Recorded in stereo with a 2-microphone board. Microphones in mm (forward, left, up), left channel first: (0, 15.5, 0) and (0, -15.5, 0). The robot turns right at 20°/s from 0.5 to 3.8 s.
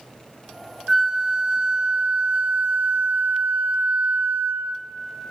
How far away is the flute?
About 0.5 m.